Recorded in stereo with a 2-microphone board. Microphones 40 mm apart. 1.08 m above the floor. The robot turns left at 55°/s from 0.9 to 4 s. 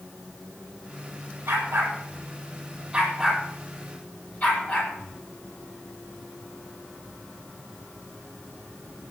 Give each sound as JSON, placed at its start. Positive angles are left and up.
{"t": 1.5, "sound": "a dog barking", "side_deg": -80, "distance_m": 9.0}